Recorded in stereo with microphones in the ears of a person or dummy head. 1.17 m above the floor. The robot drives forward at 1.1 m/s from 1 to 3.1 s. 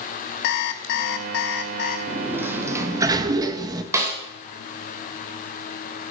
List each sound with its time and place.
0.4 s an alarm clock: 55° left (ahead or behind), 1.1 m; by 2.0 s 40° left (ahead or behind), 1.3 m
2.1 s a sliding door: 15° right (ahead or behind), 2.5 m; by 3.8 s 25° right (ahead or behind), 1.4 m
3.9 s a snare drum: 20° right (ahead or behind), 3.5 m